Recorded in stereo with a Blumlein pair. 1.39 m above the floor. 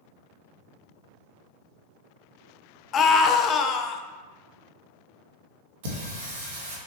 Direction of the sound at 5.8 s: 55° right.